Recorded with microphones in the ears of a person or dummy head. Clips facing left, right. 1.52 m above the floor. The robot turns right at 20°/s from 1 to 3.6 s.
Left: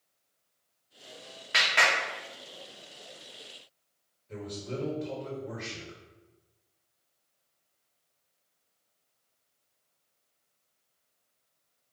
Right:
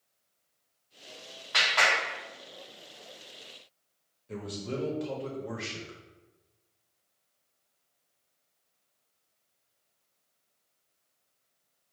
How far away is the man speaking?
About 1.1 m.